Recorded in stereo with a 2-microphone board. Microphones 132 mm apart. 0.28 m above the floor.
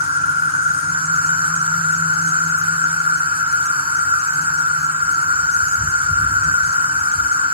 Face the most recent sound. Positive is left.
turn(degrees=-45)  # may be behind; listen again after turning